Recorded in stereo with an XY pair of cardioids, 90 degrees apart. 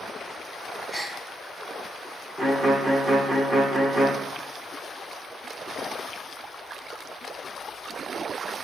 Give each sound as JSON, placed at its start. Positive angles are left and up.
{"t": 0.9, "sound": "a gasp", "azimuth_deg": -30, "distance_m": 4.5}
{"t": 2.4, "sound": "a violin", "azimuth_deg": -45, "distance_m": 1.7}